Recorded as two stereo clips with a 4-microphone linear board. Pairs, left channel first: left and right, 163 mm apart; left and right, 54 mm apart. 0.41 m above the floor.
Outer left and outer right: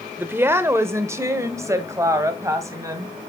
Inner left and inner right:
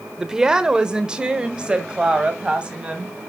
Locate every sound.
0.2 s a woman speaking: 15° right (ahead or behind), 1.0 m; by 3.1 s 20° right (ahead or behind), 2.5 m